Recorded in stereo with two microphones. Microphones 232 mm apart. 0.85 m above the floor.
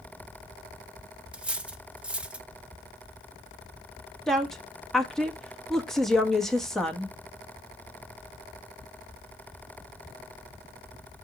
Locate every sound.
1.3 s cutlery clinking: 5° right (ahead or behind), 0.7 m
4.3 s a woman speaking: centre (ahead or behind), 1.2 m